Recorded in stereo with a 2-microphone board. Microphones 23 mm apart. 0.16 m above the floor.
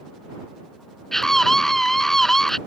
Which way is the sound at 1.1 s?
15° left (ahead or behind).